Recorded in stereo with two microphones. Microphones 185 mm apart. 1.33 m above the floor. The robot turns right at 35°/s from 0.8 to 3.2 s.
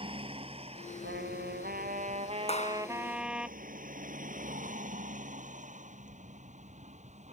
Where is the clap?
35° left (ahead or behind); by 2.9 s 50° left (ahead or behind).